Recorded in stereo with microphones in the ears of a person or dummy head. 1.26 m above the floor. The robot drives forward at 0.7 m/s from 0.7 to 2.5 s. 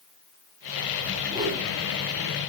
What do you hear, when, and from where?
1.3 s a whoosh: 20° right (ahead or behind), 3 m